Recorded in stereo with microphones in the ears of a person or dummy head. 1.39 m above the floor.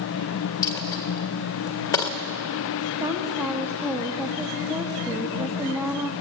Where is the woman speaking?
15° right (ahead or behind), 1.9 m.